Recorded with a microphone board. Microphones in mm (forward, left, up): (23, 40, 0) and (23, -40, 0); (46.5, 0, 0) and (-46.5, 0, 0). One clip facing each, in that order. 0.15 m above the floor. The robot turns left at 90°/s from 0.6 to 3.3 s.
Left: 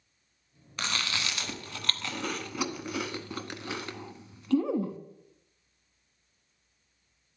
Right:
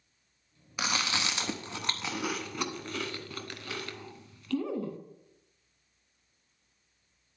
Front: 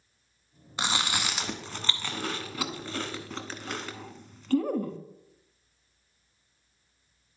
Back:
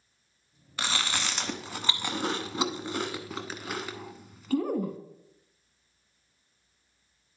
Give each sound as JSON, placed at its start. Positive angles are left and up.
{"t": 0.8, "sound": "chewing", "azimuth_deg": -25, "distance_m": 0.7}